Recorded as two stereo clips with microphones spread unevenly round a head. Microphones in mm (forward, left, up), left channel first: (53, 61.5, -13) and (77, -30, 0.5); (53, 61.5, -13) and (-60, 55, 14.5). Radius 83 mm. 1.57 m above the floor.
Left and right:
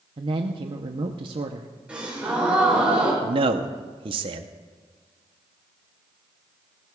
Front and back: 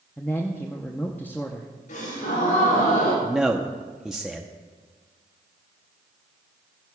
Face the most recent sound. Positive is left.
turn(degrees=-95)